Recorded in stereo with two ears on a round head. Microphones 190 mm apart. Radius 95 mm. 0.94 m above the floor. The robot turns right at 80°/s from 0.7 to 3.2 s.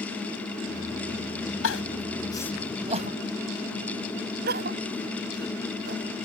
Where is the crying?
75° left (ahead or behind); by 6.0 s 50° right (ahead or behind).